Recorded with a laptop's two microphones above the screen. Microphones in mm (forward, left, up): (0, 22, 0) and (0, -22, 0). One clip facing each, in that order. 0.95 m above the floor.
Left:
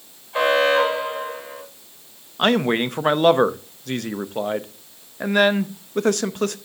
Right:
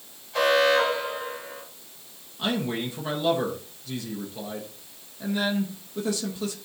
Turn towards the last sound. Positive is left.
turn(degrees=60)  # may be behind; listen again after turning